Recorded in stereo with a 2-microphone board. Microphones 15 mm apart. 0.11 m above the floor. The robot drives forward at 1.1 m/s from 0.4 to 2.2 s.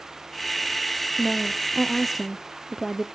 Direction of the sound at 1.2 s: 5° right (ahead or behind).